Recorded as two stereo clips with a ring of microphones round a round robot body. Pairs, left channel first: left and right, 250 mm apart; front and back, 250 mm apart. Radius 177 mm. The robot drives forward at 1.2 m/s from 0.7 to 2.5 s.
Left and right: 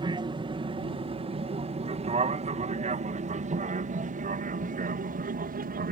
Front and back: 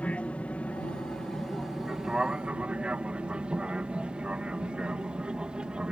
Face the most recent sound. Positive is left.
turn(degrees=-95)